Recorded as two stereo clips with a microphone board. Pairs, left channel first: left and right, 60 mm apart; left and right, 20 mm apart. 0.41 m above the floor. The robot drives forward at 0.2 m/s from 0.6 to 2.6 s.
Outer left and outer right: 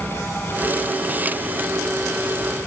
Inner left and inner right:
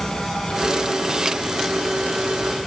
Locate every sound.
Only background noise.